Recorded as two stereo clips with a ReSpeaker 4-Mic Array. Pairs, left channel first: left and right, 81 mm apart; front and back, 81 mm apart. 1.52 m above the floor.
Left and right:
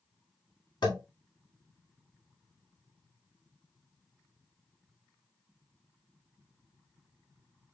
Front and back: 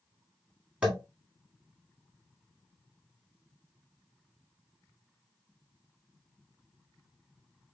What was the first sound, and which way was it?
Tapping, 100° left.